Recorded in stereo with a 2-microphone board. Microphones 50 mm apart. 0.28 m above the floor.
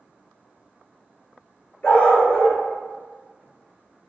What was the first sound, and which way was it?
A dog barking, 35° left (ahead or behind).